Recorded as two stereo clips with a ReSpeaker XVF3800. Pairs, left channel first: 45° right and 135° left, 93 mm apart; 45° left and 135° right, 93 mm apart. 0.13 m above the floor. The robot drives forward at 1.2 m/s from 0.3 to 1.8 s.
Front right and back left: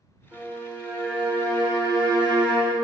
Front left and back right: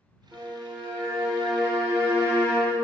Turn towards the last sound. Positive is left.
turn(degrees=180)